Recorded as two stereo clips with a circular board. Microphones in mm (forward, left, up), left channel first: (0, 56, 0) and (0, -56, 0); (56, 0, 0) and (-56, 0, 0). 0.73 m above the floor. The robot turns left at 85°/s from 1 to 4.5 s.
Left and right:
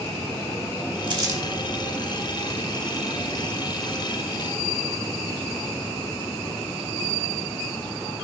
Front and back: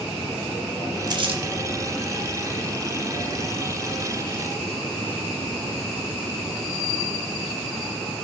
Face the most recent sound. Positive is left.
turn(degrees=-65)